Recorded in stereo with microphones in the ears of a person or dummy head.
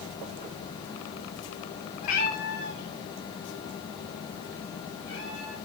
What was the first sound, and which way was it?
A cat meowing, 50° left (ahead or behind).